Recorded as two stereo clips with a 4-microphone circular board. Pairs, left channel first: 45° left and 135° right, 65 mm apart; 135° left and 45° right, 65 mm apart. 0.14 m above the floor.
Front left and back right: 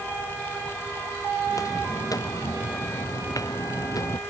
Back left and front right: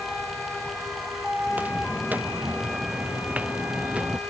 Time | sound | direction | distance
1.5 | footsteps | 20° left | ?